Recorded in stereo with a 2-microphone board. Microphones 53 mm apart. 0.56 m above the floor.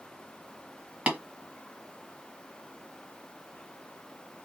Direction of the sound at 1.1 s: 20° right (ahead or behind).